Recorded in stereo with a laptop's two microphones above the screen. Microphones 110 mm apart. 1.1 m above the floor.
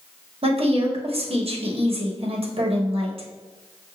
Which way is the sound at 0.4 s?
65° right (ahead or behind).